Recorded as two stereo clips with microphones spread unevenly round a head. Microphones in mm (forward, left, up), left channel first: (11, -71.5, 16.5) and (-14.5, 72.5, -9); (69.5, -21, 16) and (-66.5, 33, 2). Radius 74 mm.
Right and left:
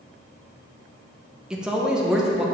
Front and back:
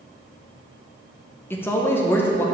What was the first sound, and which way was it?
A man speaking, 45° left.